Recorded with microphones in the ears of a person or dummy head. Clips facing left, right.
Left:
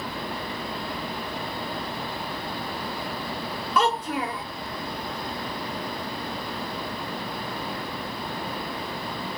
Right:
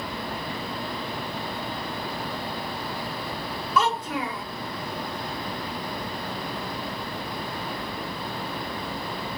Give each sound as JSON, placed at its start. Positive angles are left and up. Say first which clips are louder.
{"t": 3.8, "sound": "a child speaking", "louder": "left 1 dB", "side_deg": 50, "distance_m": 1.1}